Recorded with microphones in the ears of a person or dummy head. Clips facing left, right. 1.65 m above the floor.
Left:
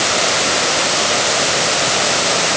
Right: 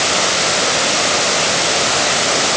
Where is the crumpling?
I don't hear crumpling.